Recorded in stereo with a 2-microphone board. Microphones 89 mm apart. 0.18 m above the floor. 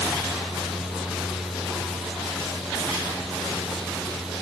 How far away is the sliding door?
I don't hear a sliding door.